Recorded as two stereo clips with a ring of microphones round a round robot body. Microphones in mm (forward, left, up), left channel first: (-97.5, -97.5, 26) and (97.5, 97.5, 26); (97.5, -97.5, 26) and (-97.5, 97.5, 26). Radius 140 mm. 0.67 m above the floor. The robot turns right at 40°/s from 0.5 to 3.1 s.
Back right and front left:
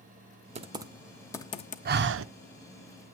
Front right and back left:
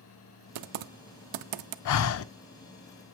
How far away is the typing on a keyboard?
About 0.7 m.